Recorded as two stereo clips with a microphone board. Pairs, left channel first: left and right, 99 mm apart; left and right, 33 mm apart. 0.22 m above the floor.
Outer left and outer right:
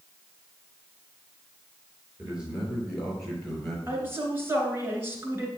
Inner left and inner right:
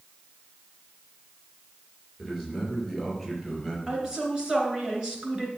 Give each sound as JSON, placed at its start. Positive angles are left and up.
{"t": 2.2, "sound": "a man speaking", "side_deg": -10, "distance_m": 4.5}
{"t": 3.9, "sound": "a woman speaking", "side_deg": -25, "distance_m": 2.5}